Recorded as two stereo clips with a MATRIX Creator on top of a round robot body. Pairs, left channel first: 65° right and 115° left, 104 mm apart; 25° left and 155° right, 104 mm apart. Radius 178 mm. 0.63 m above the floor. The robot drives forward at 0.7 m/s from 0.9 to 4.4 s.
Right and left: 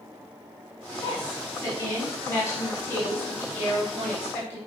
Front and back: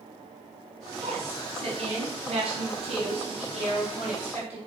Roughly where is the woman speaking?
Behind right.